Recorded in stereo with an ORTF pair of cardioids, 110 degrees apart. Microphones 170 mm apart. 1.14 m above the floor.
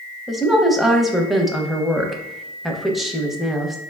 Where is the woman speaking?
Straight ahead, 0.6 m.